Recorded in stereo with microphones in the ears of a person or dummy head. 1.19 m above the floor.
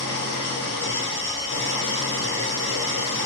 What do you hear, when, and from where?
0.0 s an engine running: 25° left (ahead or behind), 1.4 m